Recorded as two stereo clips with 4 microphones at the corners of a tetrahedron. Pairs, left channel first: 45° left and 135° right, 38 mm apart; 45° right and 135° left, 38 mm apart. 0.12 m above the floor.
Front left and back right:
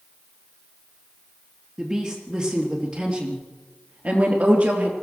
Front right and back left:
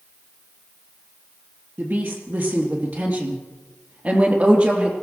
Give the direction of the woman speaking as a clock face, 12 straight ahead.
7 o'clock.